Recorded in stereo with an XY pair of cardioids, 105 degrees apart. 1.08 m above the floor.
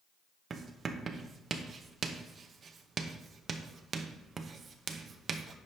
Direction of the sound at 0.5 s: 45° right.